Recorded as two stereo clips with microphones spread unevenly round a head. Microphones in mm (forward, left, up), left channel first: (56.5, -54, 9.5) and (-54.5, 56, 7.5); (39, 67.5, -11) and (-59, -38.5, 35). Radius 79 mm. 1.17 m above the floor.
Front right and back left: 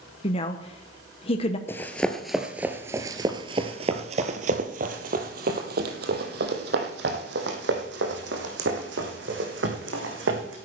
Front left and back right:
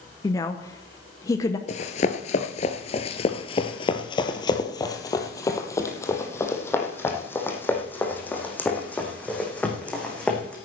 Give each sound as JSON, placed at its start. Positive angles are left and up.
{"t": 0.2, "sound": "a woman speaking", "azimuth_deg": 0, "distance_m": 0.8}
{"t": 1.7, "sound": "running footsteps", "azimuth_deg": 15, "distance_m": 1.2}